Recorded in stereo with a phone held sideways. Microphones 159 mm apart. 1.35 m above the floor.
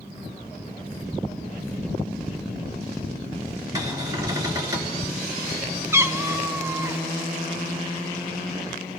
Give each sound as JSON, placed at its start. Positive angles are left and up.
{"t": 3.8, "sound": "a cupboard door", "side_deg": -20, "distance_m": 3.0}
{"t": 5.9, "sound": "a cat meowing", "side_deg": -15, "distance_m": 0.5}